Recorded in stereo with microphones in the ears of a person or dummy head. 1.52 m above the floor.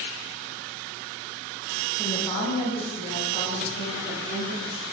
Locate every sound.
2.0 s a woman speaking: 5° left (ahead or behind), 0.5 m; by 4.8 s 65° left (ahead or behind), 1.7 m